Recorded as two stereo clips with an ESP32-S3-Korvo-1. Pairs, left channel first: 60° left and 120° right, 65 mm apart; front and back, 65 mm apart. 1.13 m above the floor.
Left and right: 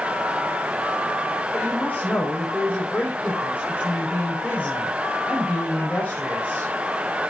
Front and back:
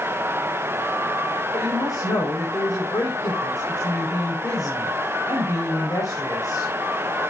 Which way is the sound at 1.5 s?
5° right.